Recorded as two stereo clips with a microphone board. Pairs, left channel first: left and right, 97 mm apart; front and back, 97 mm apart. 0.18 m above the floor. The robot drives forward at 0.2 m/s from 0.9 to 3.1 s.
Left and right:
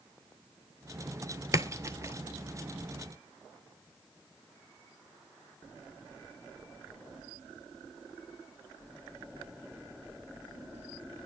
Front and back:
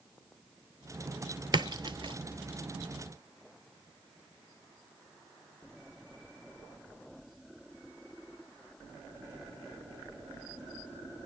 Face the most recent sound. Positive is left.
turn(degrees=-155)